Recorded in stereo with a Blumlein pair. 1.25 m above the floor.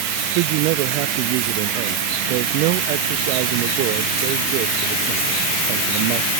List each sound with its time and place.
0.3 s a man speaking: 45° right